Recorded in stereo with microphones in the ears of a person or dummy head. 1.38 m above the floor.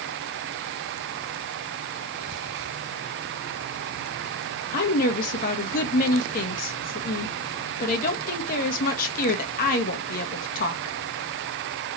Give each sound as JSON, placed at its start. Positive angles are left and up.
{"t": 4.7, "sound": "a woman speaking", "side_deg": 50, "distance_m": 0.9}